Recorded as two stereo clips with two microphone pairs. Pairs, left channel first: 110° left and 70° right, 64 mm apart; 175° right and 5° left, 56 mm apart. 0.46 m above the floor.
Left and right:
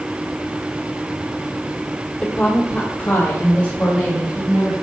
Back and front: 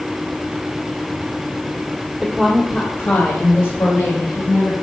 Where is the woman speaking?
65° left, 1.3 m; by 4.7 s 175° left, 3 m.